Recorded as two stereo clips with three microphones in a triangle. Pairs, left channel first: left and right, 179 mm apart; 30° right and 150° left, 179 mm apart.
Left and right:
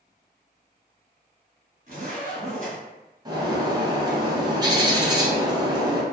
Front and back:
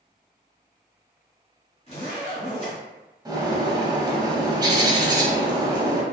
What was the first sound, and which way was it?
A zipper, 70° right.